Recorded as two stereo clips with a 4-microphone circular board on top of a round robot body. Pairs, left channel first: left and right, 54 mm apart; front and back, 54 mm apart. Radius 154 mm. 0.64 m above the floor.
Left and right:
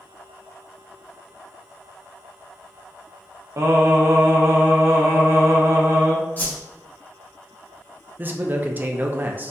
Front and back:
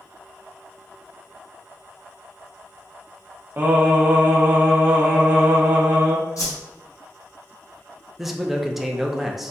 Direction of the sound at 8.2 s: 95° right.